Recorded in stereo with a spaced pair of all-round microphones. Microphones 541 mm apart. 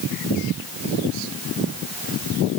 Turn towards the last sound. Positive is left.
No sound to turn to.